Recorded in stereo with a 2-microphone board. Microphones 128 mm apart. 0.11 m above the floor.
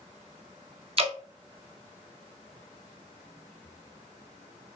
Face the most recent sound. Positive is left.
turn(degrees=-50)  # may be behind; listen again after turning